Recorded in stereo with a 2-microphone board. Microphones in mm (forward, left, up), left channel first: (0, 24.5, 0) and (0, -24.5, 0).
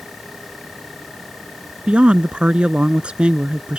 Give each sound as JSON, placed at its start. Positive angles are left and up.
{"t": 1.9, "sound": "a woman speaking", "side_deg": -20}